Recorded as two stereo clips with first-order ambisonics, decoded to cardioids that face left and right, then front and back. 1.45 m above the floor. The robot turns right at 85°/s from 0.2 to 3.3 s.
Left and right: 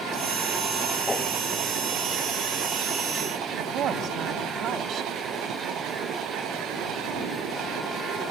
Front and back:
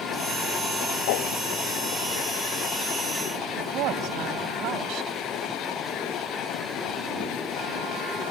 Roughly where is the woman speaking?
Behind right.